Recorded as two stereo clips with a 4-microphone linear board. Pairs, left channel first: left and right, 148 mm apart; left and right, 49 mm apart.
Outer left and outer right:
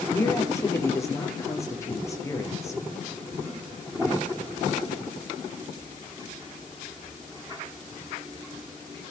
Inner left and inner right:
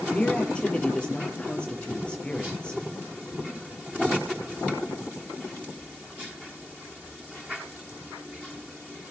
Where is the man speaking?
20° left (ahead or behind), 7 m.